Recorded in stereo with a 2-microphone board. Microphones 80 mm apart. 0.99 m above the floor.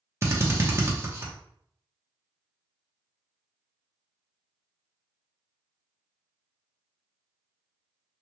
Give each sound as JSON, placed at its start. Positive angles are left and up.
{"t": 0.2, "sound": "a drill", "side_deg": -30, "distance_m": 0.8}